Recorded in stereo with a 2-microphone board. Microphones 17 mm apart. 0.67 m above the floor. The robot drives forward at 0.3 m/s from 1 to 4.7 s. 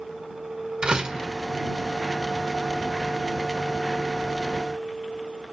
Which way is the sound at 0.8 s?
50° right (ahead or behind).